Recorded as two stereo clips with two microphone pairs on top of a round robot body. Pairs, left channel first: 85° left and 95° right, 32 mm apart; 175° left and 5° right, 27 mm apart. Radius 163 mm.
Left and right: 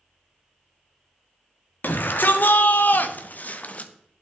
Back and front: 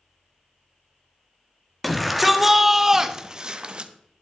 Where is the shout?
90° left, 1.6 m; by 3.9 s 45° left, 1.1 m.